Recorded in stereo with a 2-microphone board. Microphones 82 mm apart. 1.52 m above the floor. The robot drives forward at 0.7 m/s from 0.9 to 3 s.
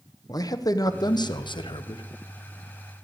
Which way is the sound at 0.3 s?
50° left (ahead or behind).